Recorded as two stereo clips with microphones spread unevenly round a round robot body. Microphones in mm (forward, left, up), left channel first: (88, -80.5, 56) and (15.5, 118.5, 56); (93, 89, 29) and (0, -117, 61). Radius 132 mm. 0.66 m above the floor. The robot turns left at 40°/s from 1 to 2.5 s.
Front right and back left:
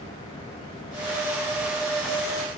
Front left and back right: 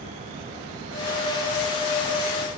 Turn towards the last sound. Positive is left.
No sound to turn to.